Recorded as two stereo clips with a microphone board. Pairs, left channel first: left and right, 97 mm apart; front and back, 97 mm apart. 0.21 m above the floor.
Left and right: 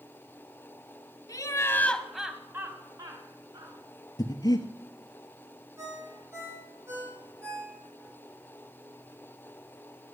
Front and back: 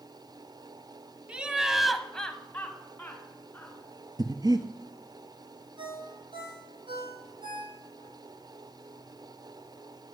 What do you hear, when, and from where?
1.3 s laughter: 105° left, 1.4 m; by 3.8 s 65° right, 2.5 m
4.2 s breathing: 135° left, 1.3 m
5.8 s a ringtone: 150° right, 5.5 m